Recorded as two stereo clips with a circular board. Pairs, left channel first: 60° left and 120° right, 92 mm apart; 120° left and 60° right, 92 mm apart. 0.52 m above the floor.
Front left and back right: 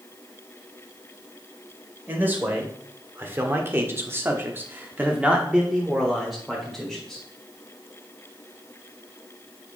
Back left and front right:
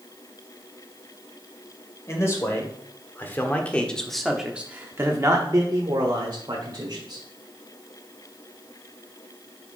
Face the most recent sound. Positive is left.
turn(degrees=-25)